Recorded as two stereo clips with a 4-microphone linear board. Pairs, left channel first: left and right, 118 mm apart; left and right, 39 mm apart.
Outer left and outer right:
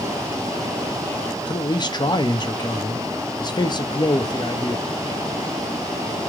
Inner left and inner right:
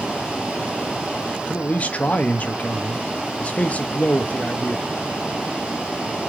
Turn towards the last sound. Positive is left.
turn(degrees=40)  # may be behind; listen again after turning